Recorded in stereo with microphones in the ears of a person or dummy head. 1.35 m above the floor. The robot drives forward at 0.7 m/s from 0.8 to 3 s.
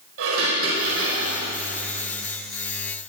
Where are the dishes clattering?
85° right, 4.5 m.